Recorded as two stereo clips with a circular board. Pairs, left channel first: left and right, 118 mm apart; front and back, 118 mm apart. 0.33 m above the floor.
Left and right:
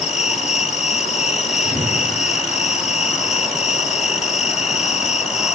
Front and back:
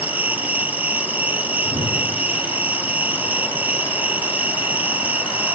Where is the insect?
105° left, 1.1 m.